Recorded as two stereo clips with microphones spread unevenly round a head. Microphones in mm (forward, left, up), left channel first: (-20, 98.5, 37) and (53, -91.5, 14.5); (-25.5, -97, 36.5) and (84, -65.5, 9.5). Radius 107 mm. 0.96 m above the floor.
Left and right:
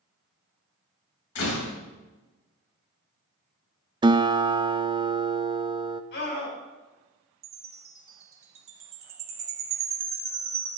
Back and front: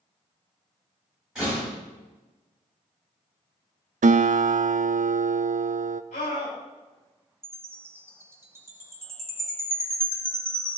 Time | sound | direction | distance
1.4 | a door slam | 105° left | 3.5 m
4.0 | a guitar | straight ahead | 0.6 m
6.1 | a scream | 150° left | 6 m
7.4 | a chime | 50° right | 2 m